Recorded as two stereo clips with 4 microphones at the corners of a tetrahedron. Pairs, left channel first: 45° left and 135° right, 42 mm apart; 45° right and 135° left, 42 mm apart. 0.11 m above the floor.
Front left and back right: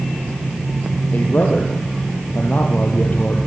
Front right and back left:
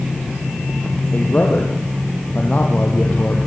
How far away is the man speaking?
About 3.5 m.